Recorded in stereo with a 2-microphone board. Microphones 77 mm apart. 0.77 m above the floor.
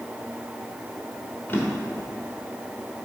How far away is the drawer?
About 1.1 m.